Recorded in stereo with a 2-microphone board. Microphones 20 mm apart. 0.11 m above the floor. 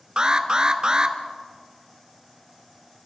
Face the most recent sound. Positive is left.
turn(degrees=-40)  # may be behind; listen again after turning